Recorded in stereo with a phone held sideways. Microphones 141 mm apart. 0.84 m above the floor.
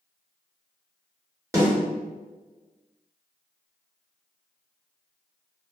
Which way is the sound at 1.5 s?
20° right (ahead or behind).